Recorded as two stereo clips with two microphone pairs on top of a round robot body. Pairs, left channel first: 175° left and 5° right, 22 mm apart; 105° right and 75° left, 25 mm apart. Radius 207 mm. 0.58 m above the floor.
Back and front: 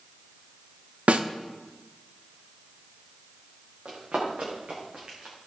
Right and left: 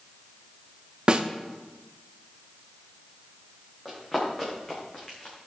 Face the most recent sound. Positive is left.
turn(degrees=-50)